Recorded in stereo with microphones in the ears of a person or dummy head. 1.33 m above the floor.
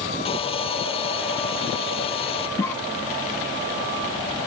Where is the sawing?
35° left (ahead or behind).